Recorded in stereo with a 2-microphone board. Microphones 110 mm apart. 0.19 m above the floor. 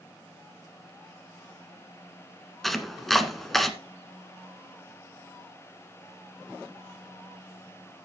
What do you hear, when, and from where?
2.6 s chopping: centre (ahead or behind), 1.2 m